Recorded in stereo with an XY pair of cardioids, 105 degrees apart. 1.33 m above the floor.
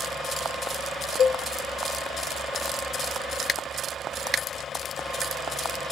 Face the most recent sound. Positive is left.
turn(degrees=60)